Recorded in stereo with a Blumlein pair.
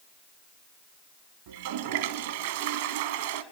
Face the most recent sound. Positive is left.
turn(degrees=-50)